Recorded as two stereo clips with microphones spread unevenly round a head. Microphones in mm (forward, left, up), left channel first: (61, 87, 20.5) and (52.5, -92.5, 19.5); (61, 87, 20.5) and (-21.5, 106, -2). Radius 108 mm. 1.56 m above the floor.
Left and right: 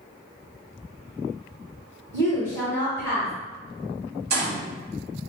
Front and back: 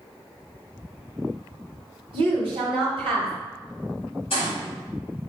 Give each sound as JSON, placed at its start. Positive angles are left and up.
{"t": 2.1, "sound": "a woman speaking", "azimuth_deg": 165, "distance_m": 1.6}
{"t": 4.3, "sound": "a gunshot", "azimuth_deg": -65, "distance_m": 1.7}